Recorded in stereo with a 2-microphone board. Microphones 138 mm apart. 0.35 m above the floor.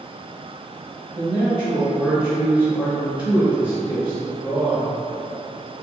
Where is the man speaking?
10° right (ahead or behind), 1.5 m.